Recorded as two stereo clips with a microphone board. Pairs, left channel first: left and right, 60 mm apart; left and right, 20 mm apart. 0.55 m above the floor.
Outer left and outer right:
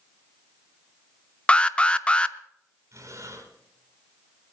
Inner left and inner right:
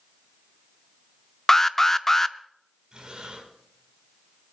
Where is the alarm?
20° left (ahead or behind), 0.6 m.